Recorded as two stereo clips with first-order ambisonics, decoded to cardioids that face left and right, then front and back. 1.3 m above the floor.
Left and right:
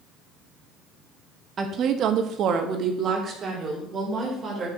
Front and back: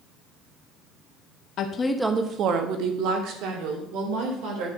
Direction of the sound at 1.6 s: 30° right.